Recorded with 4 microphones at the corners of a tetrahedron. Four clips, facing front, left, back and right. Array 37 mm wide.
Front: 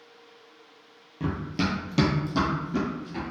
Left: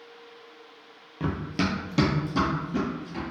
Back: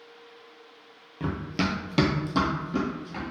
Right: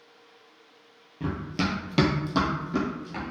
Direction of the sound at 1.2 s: 110° left.